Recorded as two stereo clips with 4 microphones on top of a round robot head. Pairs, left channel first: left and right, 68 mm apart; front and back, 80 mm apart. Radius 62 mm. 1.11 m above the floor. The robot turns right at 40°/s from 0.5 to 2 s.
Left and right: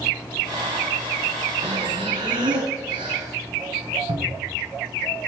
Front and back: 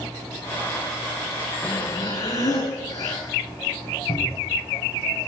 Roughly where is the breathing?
Right.